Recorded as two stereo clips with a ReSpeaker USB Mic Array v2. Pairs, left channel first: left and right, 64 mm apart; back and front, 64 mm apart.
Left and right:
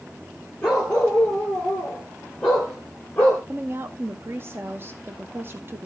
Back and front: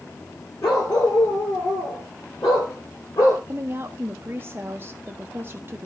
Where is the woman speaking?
45° right, 0.8 m.